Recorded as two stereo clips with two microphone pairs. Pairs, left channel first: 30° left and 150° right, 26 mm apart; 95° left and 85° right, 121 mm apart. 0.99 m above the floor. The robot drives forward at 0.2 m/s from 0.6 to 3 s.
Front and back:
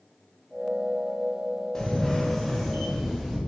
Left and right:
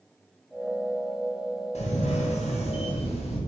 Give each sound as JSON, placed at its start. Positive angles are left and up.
{"t": 1.8, "sound": "a camera shutter", "azimuth_deg": 95, "distance_m": 0.6}